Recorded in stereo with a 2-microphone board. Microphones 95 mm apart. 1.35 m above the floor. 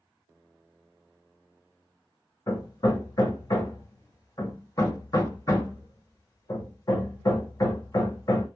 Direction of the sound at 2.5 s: 40° left (ahead or behind).